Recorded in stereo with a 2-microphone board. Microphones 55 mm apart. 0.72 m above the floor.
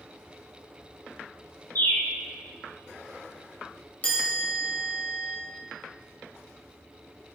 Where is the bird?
45° left (ahead or behind), 2 m.